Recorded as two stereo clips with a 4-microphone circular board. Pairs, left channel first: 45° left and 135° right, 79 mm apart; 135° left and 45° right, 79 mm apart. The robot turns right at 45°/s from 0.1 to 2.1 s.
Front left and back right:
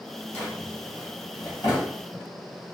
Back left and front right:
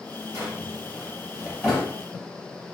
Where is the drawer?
15° right, 1.8 m; by 1.9 s 55° left, 1.8 m.